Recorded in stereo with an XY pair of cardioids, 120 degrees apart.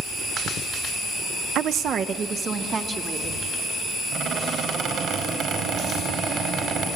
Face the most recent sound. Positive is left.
turn(degrees=-60)